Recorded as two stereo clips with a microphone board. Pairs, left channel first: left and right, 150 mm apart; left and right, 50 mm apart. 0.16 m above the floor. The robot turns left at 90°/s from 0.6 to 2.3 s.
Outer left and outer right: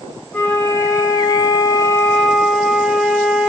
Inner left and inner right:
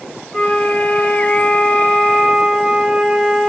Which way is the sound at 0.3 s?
10° left (ahead or behind).